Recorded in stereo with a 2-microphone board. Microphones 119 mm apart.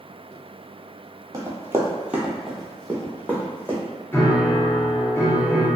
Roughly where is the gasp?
No gasp in this recording.